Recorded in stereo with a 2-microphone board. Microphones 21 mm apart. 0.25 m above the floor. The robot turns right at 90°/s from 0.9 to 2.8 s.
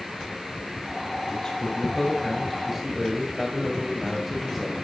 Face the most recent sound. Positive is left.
turn(degrees=-10)  # may be behind; listen again after turning